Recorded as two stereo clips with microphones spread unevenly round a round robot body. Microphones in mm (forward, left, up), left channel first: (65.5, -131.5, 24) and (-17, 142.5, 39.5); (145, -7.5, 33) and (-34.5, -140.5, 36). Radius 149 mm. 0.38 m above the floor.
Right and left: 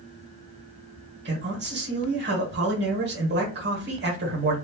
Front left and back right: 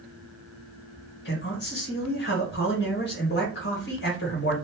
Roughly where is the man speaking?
Ahead left.